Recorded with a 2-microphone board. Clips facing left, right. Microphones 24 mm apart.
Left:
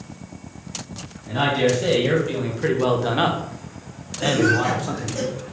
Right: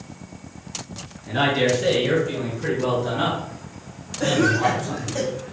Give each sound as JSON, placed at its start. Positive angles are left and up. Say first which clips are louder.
{"t": 1.3, "sound": "a man speaking", "louder": "even", "side_deg": 0, "distance_m": 1.7}
{"t": 4.2, "sound": "a cough", "louder": "even", "side_deg": -40, "distance_m": 1.0}